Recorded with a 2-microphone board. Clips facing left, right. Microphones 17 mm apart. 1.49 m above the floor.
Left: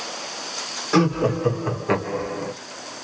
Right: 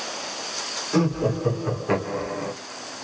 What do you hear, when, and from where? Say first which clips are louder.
0.9 s laughter: left 4 dB; 45° left (ahead or behind), 1.6 m; by 2.5 s 5° right (ahead or behind), 1.4 m